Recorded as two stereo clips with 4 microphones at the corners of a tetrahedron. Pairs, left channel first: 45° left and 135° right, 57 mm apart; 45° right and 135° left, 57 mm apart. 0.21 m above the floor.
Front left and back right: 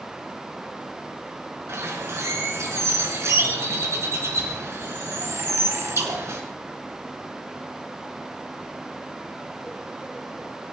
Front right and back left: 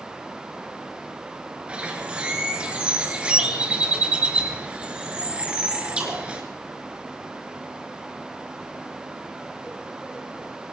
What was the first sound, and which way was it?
A bird, 160° right.